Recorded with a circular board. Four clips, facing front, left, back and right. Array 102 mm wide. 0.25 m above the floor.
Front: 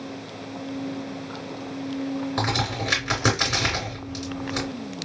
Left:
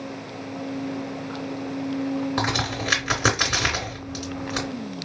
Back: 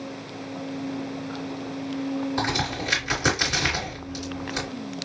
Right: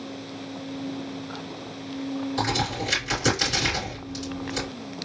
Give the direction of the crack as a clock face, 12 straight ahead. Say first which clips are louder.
Left 1 dB, front 1 dB; 10 o'clock.